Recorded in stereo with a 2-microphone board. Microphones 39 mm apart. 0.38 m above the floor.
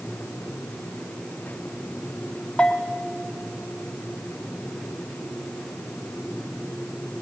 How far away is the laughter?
No laughter in this recording.